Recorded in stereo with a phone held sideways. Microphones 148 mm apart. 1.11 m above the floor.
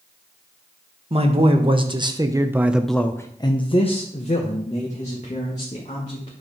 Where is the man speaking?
40° right (ahead or behind), 1.4 m; by 6.4 s 55° left (ahead or behind), 2.5 m.